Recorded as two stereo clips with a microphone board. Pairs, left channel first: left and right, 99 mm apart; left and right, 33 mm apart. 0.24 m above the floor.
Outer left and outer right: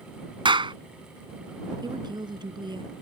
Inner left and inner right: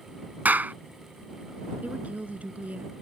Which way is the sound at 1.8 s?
50° right (ahead or behind).